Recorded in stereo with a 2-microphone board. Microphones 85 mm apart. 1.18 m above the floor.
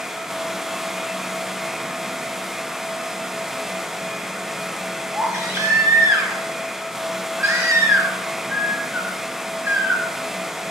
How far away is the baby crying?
About 3.5 m.